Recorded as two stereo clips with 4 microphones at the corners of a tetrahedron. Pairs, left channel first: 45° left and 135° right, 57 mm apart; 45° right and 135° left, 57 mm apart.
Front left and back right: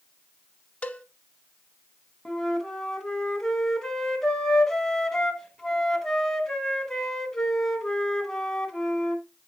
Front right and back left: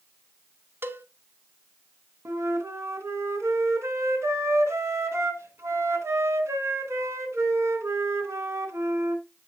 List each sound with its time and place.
0.8 s a cowbell: 105° left, 0.6 m
2.2 s a flute: 120° left, 1.2 m